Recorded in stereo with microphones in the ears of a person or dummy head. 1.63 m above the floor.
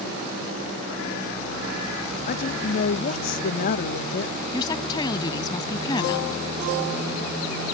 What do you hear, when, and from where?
2.3 s a woman speaking: 45° left (ahead or behind)
4.5 s a woman speaking: 25° left (ahead or behind)